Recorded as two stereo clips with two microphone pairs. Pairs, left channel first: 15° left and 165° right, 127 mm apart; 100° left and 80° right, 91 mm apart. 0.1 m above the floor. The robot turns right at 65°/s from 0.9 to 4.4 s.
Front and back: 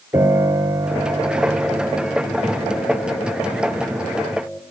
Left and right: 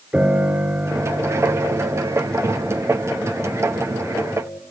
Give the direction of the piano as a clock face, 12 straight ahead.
4 o'clock.